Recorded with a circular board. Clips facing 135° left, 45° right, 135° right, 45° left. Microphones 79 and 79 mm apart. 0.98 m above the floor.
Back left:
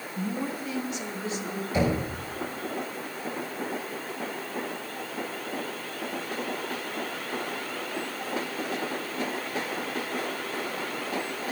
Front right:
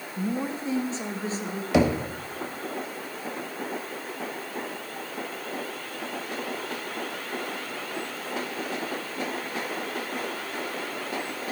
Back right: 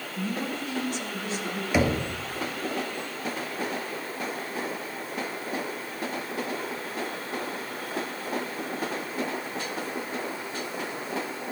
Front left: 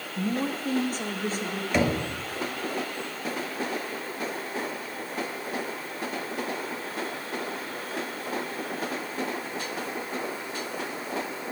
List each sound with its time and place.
0.2 s a woman speaking: 15° left, 0.8 m; by 1.6 s 5° left, 2 m
1.7 s knocking: 50° right, 1.4 m